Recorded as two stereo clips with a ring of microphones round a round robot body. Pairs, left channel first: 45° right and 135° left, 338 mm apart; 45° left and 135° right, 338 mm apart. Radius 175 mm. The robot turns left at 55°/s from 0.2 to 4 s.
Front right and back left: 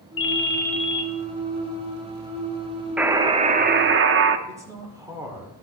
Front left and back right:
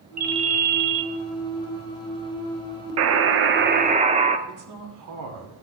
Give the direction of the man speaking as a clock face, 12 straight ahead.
5 o'clock.